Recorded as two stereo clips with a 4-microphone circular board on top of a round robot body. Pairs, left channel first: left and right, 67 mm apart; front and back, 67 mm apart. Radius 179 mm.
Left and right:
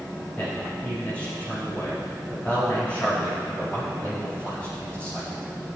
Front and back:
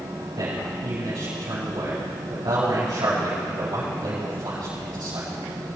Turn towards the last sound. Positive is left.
turn(degrees=160)